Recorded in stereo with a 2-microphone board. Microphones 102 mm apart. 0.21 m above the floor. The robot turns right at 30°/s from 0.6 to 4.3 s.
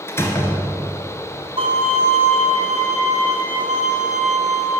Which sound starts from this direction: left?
A door slam, at 0.1 s.